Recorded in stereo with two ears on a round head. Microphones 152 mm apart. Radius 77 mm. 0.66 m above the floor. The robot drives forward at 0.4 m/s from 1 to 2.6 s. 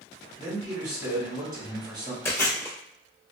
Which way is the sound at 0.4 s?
20° right (ahead or behind).